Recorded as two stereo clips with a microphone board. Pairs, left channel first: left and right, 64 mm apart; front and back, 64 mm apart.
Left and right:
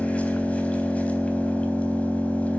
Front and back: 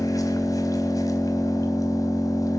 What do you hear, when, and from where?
0.0 s an engine running: 20° left, 3.5 m